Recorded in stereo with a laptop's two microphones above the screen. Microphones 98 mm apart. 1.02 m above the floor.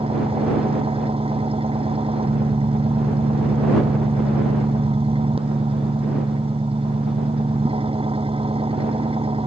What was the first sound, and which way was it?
An engine running, 70° right (ahead or behind).